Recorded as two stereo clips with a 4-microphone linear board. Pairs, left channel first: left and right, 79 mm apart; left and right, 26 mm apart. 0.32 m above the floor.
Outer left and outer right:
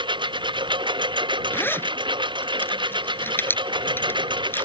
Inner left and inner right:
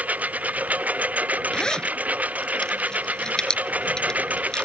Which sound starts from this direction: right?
A lawn mower, at 0.0 s.